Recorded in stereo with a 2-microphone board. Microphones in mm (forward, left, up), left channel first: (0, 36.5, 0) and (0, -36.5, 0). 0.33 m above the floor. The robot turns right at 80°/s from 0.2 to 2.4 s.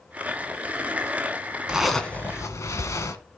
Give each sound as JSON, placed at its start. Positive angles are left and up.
{"t": 1.7, "sound": "a zipper", "azimuth_deg": -15, "distance_m": 1.9}